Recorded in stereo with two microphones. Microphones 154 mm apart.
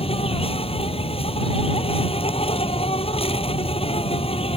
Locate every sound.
0.0 s an insect: 40° left (ahead or behind)